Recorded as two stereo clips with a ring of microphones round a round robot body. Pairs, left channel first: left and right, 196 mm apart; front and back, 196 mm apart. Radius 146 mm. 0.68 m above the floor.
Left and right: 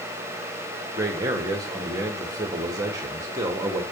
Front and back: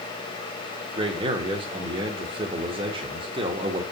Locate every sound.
1.0 s a man speaking: 150° right, 1.3 m